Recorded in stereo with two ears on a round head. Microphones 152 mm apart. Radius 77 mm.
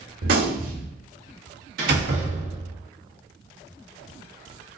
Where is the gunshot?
60° right (ahead or behind), 1.6 m.